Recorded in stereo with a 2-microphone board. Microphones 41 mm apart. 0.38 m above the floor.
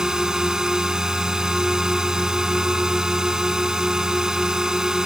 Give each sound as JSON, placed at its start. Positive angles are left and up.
{"t": 0.0, "sound": "a drone", "side_deg": -10}